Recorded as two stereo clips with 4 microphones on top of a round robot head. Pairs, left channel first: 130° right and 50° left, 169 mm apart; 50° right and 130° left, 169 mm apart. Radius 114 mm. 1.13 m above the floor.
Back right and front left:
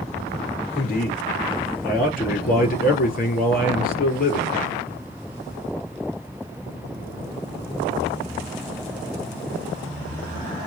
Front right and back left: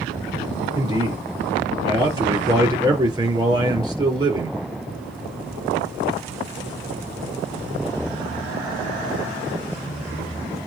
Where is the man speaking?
165° right, 5 m.